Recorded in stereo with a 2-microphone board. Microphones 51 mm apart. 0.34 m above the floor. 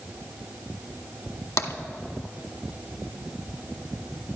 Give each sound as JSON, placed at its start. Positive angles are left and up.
{"t": 1.6, "sound": "tapping", "side_deg": 75, "distance_m": 0.8}